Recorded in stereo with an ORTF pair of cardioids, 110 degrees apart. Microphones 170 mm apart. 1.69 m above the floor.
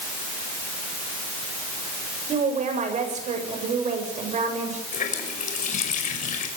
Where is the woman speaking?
45° right, 8 m.